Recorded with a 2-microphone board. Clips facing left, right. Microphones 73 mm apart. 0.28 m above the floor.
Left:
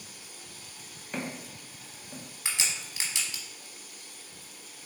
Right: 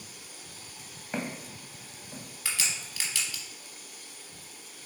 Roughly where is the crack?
Left.